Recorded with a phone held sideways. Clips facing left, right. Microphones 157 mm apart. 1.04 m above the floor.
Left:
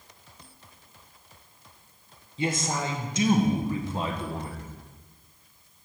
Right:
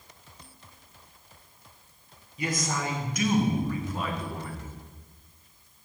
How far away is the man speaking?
About 0.8 m.